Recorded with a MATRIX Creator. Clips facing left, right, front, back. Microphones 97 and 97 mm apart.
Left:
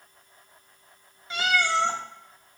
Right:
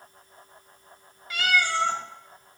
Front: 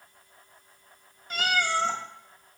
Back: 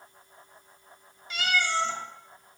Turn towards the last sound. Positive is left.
turn(degrees=30)